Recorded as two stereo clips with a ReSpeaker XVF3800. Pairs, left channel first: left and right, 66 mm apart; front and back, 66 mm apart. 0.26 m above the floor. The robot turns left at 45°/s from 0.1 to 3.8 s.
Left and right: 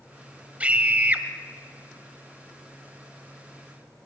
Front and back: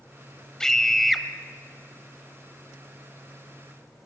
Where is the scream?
65° right, 1.0 m; by 1.2 s 95° right, 1.0 m.